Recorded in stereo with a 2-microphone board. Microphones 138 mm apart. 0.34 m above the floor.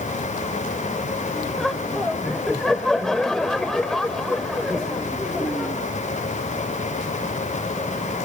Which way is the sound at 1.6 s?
5° left (ahead or behind).